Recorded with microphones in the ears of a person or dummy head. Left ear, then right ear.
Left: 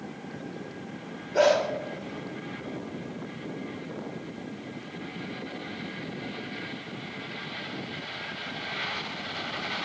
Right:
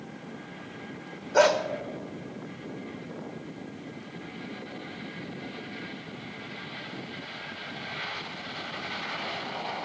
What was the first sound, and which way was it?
A dog barking, 40° right (ahead or behind).